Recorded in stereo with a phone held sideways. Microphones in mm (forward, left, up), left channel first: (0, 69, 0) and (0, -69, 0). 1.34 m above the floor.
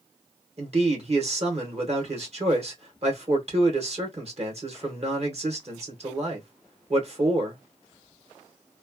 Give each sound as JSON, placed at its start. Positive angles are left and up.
{"t": 0.6, "sound": "a man speaking", "side_deg": -50, "distance_m": 1.3}